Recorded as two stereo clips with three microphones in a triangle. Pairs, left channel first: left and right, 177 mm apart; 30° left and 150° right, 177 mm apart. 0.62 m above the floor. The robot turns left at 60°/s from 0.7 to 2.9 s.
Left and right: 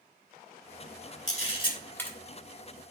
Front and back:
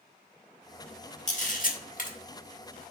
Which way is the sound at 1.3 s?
60° left.